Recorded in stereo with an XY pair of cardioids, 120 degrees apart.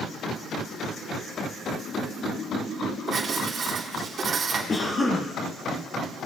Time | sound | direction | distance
3.1 | writing | 40° right | 3.5 m
4.7 | a cough | 30° left | 1.4 m